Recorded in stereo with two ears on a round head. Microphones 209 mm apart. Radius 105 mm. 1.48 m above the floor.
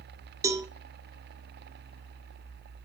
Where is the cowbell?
10° right (ahead or behind), 1.2 m.